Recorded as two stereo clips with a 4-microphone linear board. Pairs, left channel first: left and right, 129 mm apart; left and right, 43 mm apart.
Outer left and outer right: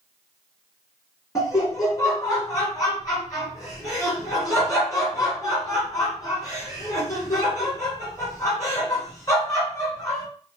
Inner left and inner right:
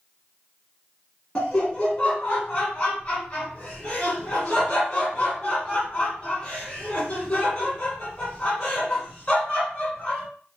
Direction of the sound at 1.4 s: 25° left (ahead or behind).